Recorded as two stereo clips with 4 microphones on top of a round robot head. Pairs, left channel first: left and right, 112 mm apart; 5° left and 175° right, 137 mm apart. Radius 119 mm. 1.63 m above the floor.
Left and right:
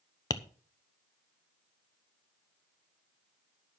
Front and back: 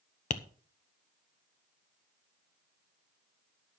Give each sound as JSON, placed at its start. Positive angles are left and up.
{"t": 0.3, "sound": "tapping", "azimuth_deg": 35, "distance_m": 1.0}